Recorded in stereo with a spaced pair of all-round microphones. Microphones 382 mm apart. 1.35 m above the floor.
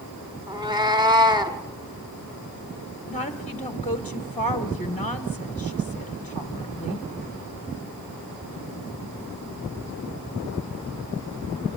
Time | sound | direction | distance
0.5 | a cat meowing | 10° right (ahead or behind) | 1.4 m
3.1 | a woman speaking | 20° left (ahead or behind) | 1.0 m